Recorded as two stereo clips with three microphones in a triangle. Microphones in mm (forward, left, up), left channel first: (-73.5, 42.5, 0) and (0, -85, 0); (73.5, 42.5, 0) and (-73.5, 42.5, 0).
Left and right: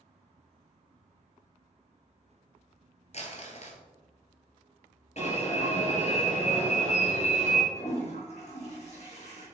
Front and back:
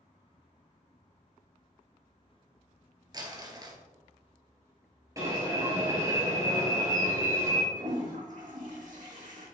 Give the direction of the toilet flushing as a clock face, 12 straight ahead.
7 o'clock.